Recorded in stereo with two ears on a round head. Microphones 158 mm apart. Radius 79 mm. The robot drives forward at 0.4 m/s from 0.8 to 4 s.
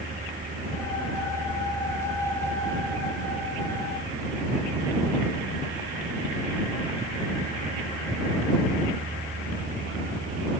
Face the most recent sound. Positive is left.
No sound to turn to.